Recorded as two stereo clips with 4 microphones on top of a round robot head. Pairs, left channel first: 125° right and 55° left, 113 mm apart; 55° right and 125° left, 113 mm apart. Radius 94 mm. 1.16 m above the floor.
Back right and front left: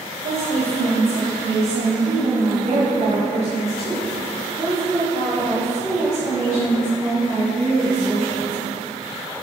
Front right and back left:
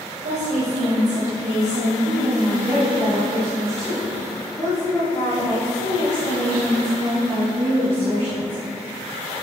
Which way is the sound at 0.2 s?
90° left.